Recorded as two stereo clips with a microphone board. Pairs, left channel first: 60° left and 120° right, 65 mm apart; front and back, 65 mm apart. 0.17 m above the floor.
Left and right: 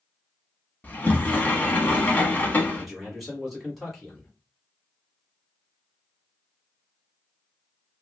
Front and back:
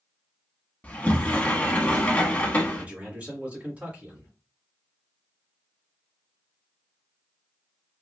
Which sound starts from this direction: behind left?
A man speaking, at 2.7 s.